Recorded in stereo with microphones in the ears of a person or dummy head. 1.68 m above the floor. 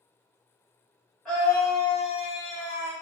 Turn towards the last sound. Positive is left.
turn(degrees=50)  # may be behind; listen again after turning